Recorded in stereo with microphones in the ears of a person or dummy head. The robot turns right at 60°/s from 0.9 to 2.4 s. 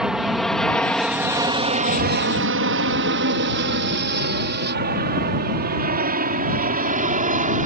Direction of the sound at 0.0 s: Centre (ahead or behind).